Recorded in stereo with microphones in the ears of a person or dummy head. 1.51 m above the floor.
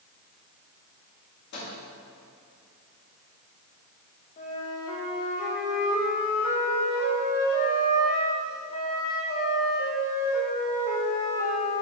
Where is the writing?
No writing in this recording.